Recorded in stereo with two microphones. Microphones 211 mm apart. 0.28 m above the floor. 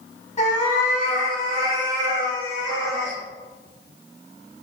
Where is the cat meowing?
35° left (ahead or behind), 0.8 m; by 3.2 s 55° left (ahead or behind), 2 m.